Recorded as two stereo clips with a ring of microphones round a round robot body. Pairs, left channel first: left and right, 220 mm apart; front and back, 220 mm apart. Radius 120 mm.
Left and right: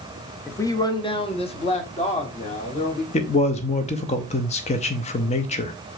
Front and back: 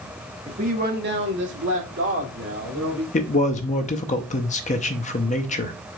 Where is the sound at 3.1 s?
45° left, 0.6 m.